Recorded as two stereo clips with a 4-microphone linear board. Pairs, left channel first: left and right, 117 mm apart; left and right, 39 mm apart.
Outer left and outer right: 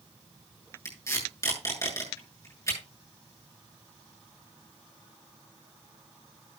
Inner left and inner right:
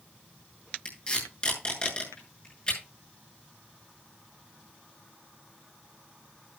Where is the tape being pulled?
25° left (ahead or behind), 8 m.